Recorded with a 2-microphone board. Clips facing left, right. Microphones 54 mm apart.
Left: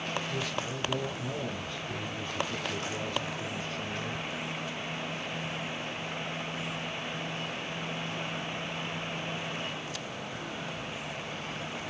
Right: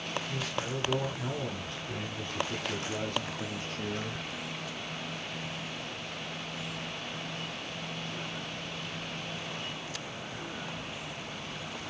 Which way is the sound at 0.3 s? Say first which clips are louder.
Left 1 dB; 65° right (ahead or behind).